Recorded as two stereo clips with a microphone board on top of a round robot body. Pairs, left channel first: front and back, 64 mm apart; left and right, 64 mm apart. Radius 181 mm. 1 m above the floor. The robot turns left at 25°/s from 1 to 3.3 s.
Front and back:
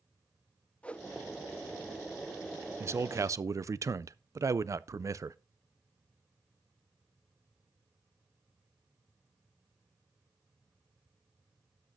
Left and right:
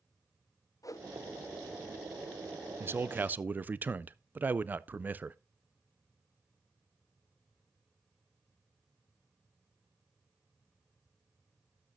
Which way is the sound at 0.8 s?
70° left.